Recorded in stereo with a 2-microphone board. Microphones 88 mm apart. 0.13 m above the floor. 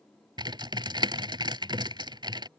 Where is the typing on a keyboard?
55° right (ahead or behind).